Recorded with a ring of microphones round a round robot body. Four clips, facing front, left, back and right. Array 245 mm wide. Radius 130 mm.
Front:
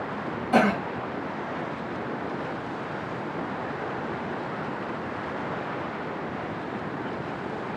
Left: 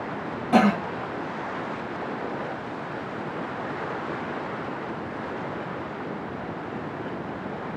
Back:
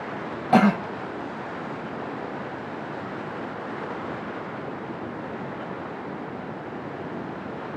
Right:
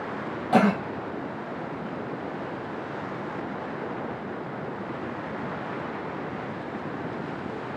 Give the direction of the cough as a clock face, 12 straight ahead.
6 o'clock.